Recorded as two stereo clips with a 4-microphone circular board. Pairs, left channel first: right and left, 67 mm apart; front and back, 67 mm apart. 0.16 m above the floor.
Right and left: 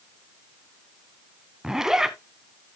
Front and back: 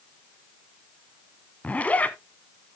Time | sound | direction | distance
1.6 | a zipper | 20° left | 0.9 m